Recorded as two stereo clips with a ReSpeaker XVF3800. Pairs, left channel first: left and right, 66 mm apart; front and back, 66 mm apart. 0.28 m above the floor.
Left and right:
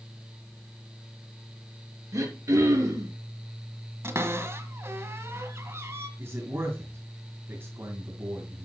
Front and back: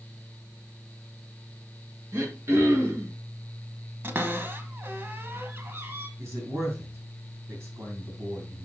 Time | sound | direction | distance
2.1 | throat clearing | 125° right | 4.5 m
4.0 | a cupboard door | 125° right | 1.4 m
6.2 | a man speaking | 135° right | 2.5 m